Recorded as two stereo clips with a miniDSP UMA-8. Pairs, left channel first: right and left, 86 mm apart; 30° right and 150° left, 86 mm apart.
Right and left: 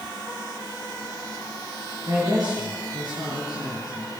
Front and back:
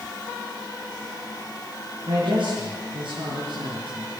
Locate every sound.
2.1 s a man speaking: 135° left, 7.5 m